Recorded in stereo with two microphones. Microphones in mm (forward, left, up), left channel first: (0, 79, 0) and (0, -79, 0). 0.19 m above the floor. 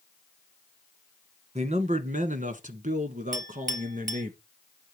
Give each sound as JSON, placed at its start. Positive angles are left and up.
{"t": 1.6, "sound": "a man speaking", "side_deg": -45, "distance_m": 1.5}
{"t": 3.3, "sound": "a clink", "side_deg": -55, "distance_m": 0.9}